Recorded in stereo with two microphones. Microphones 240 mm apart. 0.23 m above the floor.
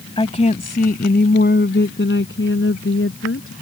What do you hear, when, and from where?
0.2 s a woman speaking: 25° left (ahead or behind); by 3.5 s 60° left (ahead or behind)